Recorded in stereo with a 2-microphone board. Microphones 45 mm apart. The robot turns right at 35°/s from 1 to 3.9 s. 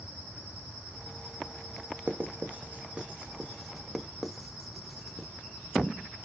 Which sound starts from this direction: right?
Writing, at 2.1 s.